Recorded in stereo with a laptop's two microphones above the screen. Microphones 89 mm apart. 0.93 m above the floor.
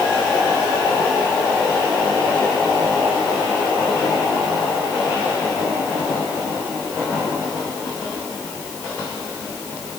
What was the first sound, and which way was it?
Only background noise.